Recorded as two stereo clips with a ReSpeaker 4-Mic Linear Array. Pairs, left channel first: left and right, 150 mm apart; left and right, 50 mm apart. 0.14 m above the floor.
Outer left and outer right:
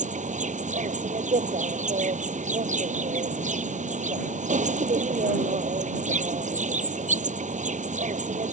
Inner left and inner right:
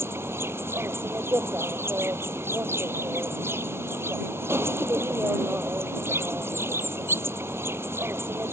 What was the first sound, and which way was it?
An insect, 55° right (ahead or behind).